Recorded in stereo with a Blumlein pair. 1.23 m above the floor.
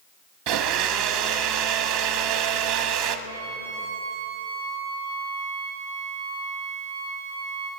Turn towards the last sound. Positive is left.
turn(degrees=-60)